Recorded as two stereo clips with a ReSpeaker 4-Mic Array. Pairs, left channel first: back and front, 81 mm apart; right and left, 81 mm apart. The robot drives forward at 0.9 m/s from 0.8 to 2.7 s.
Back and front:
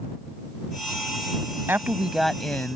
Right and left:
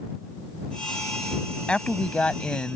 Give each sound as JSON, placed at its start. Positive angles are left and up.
{"t": 1.7, "sound": "a woman speaking", "azimuth_deg": -25}